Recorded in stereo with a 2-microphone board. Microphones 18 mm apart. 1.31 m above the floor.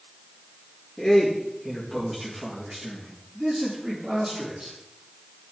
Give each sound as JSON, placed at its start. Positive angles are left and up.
{"t": 1.0, "sound": "a man speaking", "side_deg": 20, "distance_m": 2.0}